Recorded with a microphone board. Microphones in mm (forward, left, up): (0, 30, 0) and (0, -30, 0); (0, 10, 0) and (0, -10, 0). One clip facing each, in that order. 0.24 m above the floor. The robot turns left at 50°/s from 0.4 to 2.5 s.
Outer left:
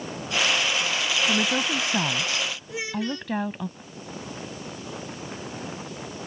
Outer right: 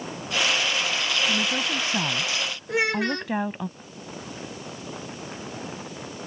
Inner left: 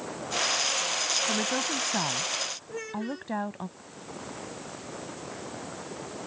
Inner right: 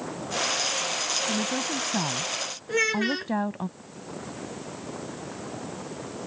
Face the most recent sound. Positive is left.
turn(degrees=-60)  # may be behind; listen again after turning